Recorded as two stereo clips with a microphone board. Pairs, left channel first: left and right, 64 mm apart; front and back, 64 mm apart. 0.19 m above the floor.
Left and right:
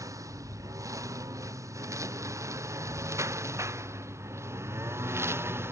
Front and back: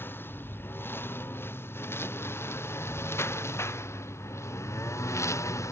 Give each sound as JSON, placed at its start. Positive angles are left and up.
{"t": 0.0, "sound": "a lawn mower", "azimuth_deg": -55}